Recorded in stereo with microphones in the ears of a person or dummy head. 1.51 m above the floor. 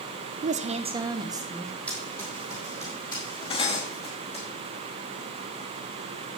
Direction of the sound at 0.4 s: 45° right (ahead or behind).